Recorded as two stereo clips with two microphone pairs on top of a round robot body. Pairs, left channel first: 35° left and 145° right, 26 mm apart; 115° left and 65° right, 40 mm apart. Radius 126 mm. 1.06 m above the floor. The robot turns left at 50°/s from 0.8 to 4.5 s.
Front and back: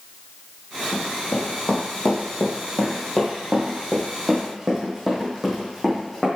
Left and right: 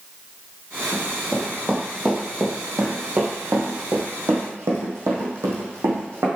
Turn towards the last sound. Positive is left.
turn(degrees=-55)